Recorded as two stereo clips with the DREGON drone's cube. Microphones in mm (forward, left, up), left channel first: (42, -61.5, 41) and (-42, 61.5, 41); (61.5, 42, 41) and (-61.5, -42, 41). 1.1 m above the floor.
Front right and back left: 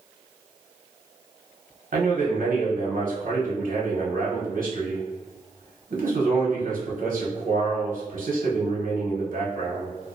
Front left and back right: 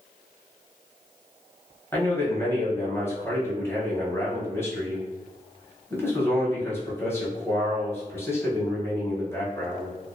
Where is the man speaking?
110° left, 0.8 m.